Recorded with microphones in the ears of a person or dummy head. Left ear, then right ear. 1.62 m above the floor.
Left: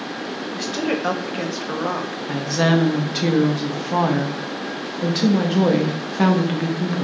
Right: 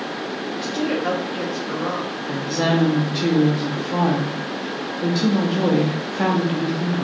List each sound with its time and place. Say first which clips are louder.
0.5 s a woman speaking: left 1 dB; 30° left (ahead or behind), 0.7 m
2.3 s a woman speaking: left 2 dB; 15° left (ahead or behind), 0.6 m